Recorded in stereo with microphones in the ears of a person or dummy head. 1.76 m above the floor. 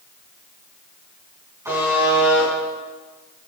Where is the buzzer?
20° right (ahead or behind), 5 m.